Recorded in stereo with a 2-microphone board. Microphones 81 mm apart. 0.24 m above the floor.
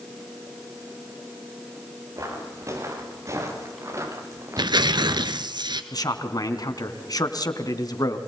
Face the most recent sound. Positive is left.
turn(degrees=55)  # may be behind; listen again after turning